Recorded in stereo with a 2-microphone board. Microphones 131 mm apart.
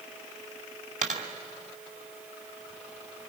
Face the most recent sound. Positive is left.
turn(degrees=-80)